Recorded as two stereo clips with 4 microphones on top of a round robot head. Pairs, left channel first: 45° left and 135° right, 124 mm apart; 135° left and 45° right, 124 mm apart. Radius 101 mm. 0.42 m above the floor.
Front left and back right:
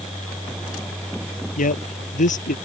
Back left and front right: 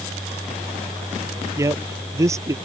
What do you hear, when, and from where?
1.6 s a man speaking: 25° left